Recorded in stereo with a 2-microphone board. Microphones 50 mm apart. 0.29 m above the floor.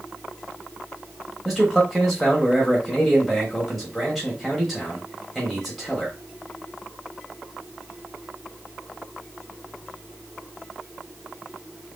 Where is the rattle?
No rattle in this recording.